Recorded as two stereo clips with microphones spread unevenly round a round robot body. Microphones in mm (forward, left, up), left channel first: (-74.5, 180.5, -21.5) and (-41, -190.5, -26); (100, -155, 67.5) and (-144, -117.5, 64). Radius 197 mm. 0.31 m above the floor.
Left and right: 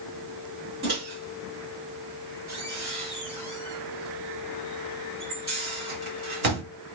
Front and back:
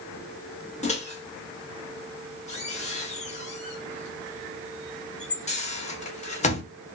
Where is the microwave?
45° right, 0.9 m.